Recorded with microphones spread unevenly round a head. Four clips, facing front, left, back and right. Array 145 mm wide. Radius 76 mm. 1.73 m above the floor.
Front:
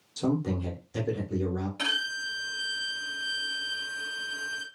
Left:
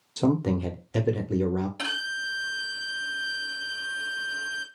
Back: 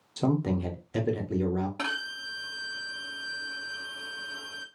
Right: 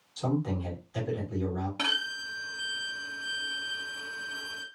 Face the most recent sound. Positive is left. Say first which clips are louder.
# left 2 dB, front 1 dB
turn(degrees=-155)